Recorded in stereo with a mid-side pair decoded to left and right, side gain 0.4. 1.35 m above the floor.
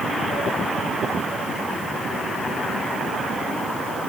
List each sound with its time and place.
Only background noise.